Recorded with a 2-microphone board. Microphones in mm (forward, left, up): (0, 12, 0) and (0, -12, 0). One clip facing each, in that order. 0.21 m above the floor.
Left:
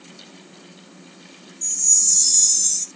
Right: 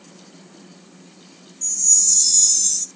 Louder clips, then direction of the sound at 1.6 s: Right 1 dB; 10° right (ahead or behind).